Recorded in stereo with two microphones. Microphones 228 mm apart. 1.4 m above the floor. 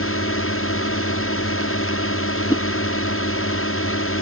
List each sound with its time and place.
0.0 s a drone: 70° left (ahead or behind)
2.5 s a whoosh: 15° left (ahead or behind)